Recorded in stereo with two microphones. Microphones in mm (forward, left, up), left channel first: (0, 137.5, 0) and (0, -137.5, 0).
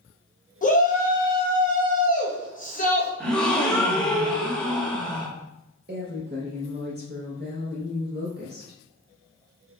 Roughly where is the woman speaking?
Right.